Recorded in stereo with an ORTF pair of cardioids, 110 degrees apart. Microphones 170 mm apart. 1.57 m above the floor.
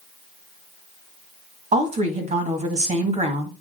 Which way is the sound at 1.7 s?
45° right.